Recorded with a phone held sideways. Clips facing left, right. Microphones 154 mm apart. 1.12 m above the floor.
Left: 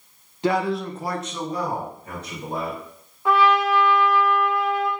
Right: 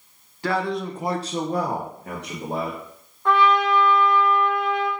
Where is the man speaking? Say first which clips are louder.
Left 2 dB; 20° left (ahead or behind), 0.7 m; by 2.8 s 70° right (ahead or behind), 1.6 m.